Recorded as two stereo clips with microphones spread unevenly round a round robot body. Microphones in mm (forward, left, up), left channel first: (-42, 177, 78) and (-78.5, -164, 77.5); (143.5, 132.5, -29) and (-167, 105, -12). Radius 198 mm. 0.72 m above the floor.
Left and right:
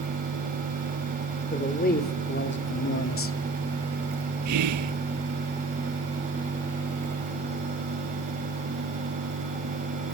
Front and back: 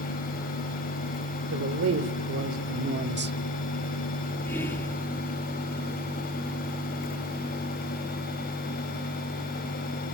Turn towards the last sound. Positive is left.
turn(degrees=-75)